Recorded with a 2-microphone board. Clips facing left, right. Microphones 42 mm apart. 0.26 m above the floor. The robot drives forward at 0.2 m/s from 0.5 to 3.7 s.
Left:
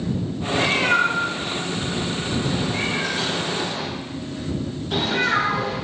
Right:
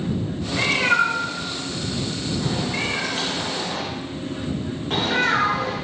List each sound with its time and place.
0.5 s a cat meowing: 45° right (ahead or behind), 1.2 m; by 5.8 s 55° right (ahead or behind), 1.0 m